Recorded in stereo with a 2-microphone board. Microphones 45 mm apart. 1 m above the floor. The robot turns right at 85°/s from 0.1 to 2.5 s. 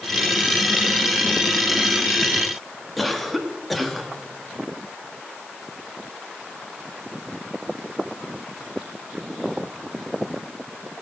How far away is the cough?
About 1.3 m.